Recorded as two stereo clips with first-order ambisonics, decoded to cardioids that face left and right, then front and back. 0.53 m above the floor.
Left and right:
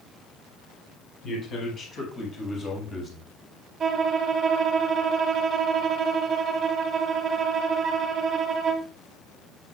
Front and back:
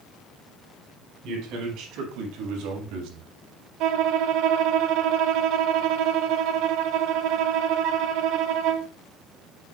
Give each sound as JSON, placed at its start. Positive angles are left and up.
{"t": 1.2, "sound": "a man speaking", "azimuth_deg": 145, "distance_m": 5.0}
{"t": 3.8, "sound": "a violin", "azimuth_deg": -150, "distance_m": 0.7}